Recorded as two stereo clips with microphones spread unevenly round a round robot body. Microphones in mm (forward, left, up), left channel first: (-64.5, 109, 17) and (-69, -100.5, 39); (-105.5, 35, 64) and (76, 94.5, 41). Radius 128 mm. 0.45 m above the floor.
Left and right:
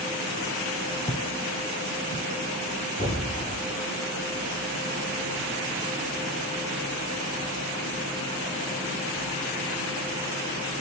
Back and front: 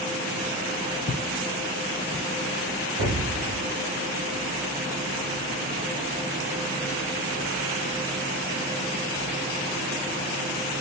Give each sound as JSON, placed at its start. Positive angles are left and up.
{"t": 1.1, "sound": "footsteps", "azimuth_deg": 165, "distance_m": 0.7}
{"t": 3.0, "sound": "an explosion", "azimuth_deg": 15, "distance_m": 0.8}